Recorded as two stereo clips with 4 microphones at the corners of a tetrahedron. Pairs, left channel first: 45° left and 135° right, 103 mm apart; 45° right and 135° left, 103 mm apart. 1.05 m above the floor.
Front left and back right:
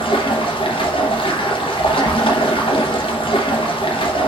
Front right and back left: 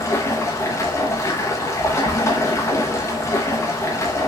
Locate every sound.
0.0 s running water: 15° left, 0.9 m